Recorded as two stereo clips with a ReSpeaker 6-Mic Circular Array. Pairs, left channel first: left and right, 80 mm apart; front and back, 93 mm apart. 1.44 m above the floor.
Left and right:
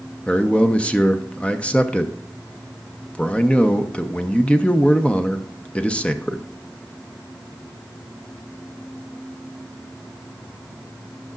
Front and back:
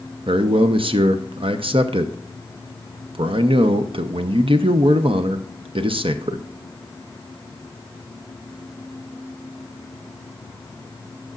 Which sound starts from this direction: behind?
A man speaking, at 0.3 s.